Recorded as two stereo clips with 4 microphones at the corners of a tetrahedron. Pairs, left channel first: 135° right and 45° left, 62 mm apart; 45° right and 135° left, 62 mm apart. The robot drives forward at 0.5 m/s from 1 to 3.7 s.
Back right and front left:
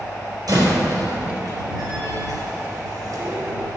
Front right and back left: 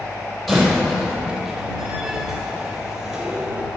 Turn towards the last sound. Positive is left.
turn(degrees=60)